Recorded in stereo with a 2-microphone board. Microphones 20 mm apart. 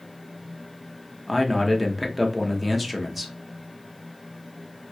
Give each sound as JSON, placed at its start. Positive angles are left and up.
{"t": 1.3, "sound": "a man speaking", "side_deg": -10, "distance_m": 0.6}